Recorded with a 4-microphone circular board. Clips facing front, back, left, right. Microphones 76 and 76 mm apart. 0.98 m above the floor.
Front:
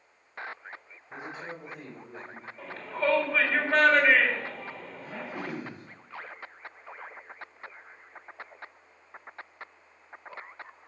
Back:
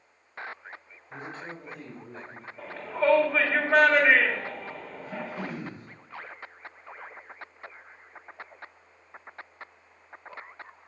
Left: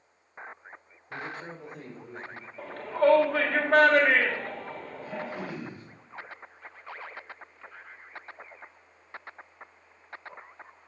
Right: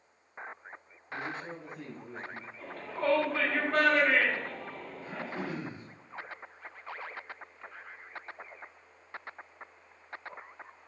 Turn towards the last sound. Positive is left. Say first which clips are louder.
# back 2 dB, left 1 dB
turn(degrees=-20)